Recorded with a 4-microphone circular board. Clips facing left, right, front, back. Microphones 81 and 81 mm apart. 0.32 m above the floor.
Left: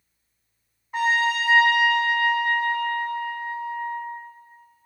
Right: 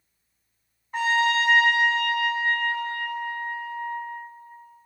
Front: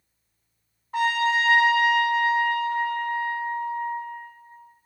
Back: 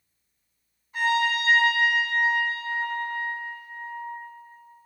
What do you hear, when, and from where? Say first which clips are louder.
0.9 s a trumpet: even, front 2 dB; 5° left, 1.2 m